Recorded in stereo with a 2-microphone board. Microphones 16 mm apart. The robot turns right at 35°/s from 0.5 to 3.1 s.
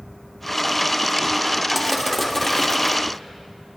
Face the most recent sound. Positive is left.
turn(degrees=45)